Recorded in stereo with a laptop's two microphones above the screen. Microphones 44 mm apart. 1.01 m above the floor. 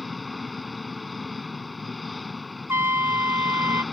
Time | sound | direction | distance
0.0 | an engine running | centre (ahead or behind) | ?
2.7 | a trumpet | 65° right (ahead or behind) | ?